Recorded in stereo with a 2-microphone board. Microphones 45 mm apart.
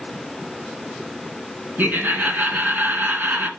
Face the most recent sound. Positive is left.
turn(degrees=-40)  # may be behind; listen again after turning